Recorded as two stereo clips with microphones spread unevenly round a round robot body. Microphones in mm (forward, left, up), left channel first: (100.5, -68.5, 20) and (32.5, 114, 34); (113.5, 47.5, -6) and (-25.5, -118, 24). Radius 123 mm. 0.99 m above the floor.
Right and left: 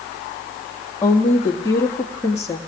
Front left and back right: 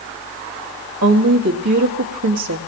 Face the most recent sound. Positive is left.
turn(degrees=-145)